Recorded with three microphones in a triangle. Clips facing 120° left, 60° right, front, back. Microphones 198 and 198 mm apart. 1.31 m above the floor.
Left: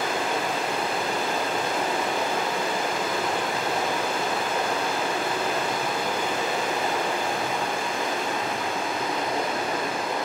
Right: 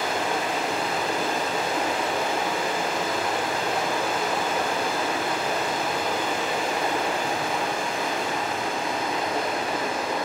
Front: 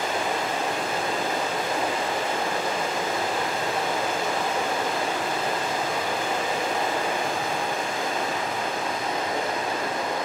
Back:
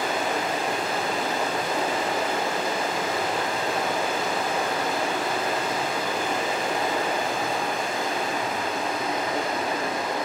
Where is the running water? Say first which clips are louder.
Even, back 1 dB; 60° right, 3 m.